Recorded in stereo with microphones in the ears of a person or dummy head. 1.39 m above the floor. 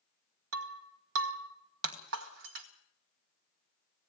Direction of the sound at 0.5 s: 55° right (ahead or behind).